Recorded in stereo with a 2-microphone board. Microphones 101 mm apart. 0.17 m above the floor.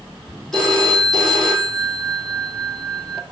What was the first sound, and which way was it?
A phone ringing, 5° left (ahead or behind).